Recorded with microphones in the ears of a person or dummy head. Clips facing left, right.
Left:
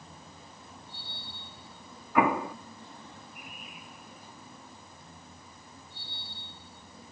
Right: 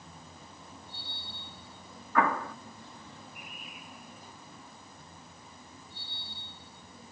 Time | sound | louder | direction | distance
2.1 | an explosion | left 3 dB | 15° left (ahead or behind) | ?